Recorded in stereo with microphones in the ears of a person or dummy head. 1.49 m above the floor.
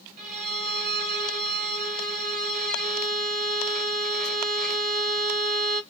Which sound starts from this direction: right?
A violin, at 0.2 s.